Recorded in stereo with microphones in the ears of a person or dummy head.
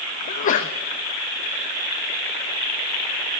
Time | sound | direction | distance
0.3 | a sneeze | 45° left (ahead or behind) | 0.6 m